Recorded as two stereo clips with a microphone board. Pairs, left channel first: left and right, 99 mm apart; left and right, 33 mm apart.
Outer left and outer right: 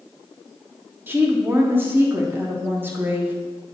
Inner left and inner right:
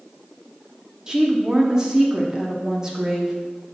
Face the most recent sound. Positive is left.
turn(degrees=-20)  # may be behind; listen again after turning